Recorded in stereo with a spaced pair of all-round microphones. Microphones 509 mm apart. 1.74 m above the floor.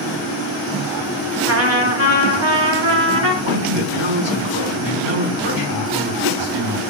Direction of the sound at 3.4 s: 60° right (ahead or behind).